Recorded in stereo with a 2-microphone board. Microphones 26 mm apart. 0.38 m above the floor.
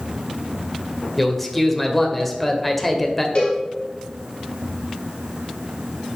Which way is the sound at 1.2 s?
5° left (ahead or behind).